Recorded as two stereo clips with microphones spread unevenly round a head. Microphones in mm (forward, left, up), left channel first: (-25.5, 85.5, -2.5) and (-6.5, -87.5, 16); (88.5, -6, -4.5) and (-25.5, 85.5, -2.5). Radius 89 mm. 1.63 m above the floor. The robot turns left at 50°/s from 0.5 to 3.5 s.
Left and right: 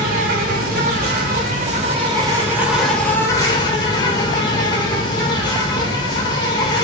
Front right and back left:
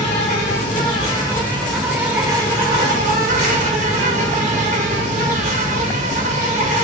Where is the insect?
65° right, 1.1 m; by 6.8 s 145° left, 1.1 m.